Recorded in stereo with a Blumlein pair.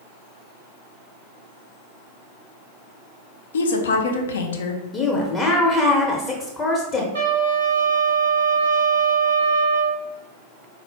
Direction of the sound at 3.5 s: 65° left.